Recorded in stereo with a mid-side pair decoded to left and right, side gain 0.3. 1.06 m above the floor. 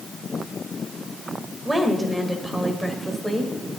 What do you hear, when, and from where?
1.6 s a woman speaking: 25° right, 5.5 m; by 3.5 s 5° right, 6 m